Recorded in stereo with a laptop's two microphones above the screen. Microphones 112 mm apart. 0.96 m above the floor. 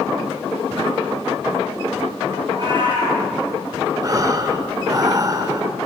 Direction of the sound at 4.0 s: 35° right (ahead or behind).